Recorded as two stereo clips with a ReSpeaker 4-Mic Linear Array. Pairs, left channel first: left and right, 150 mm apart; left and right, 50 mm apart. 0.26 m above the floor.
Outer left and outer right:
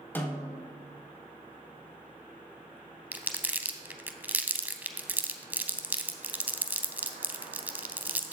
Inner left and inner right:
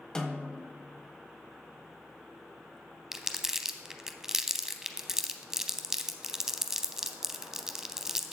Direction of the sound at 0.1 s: 15° left (ahead or behind).